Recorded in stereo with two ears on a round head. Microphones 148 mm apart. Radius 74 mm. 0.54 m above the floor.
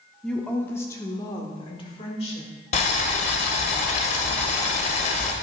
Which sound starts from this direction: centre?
A woman speaking, at 0.2 s.